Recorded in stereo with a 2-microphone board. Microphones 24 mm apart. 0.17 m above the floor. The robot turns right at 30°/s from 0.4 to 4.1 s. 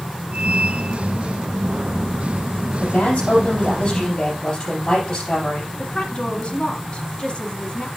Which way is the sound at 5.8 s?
40° left (ahead or behind).